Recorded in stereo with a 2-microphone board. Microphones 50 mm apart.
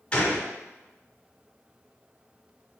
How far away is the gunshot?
About 1.2 m.